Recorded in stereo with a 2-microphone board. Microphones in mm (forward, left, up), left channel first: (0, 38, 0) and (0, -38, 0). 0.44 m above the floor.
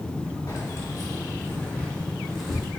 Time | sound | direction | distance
0.5 | keys jangling | 50° left (ahead or behind) | 1.5 m